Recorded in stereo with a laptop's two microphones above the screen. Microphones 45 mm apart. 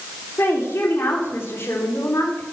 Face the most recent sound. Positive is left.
turn(degrees=70)  # may be behind; listen again after turning